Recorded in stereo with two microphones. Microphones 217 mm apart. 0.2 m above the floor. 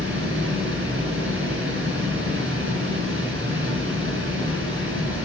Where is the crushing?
I don't hear crushing.